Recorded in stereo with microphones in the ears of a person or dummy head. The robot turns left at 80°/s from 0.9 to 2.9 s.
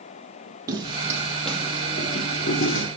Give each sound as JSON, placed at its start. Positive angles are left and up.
{"t": 0.7, "sound": "footsteps", "side_deg": -20, "distance_m": 2.5}